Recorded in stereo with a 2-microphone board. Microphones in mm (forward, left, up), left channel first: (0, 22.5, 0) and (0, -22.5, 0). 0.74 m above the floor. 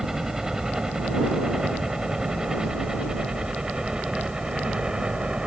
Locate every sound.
0.0 s a helicopter: 10° right (ahead or behind); by 5.5 s 20° right (ahead or behind)